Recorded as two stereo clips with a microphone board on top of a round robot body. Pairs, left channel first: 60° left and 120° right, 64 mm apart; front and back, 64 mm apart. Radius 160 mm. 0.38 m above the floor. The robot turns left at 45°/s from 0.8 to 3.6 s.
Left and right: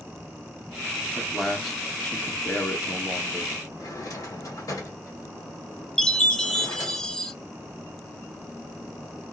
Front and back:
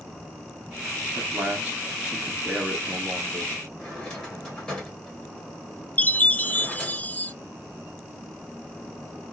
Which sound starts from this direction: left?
A drawer, at 3.8 s.